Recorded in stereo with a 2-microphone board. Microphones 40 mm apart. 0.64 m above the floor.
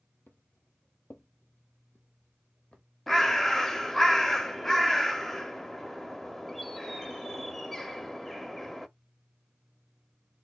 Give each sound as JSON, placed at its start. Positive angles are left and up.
{"t": 0.3, "sound": "footsteps", "side_deg": 60, "distance_m": 1.2}
{"t": 3.1, "sound": "a bird", "side_deg": 5, "distance_m": 0.5}